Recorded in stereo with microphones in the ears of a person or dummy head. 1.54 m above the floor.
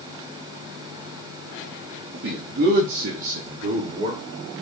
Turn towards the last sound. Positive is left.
turn(degrees=-30)  # may be behind; listen again after turning